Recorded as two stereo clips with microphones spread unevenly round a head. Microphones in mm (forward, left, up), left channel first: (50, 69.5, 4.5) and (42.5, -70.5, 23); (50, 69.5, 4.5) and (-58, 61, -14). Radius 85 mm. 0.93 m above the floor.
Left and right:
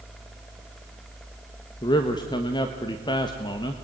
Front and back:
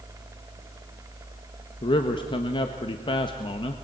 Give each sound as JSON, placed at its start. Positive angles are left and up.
{"t": 1.8, "sound": "a man speaking", "azimuth_deg": 45, "distance_m": 1.3}